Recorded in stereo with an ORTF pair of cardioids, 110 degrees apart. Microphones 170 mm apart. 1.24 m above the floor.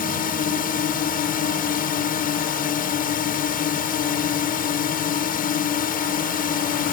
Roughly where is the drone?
Ahead left.